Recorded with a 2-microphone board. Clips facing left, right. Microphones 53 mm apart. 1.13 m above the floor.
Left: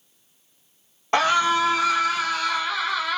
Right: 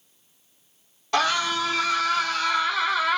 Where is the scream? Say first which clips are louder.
Left 4 dB; 30° left (ahead or behind), 1.7 m; by 3.2 s 10° right (ahead or behind), 1.6 m.